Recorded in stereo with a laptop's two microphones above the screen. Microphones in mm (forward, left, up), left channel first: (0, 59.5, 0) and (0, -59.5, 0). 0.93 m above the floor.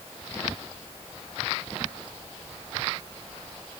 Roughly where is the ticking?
No ticking in this recording.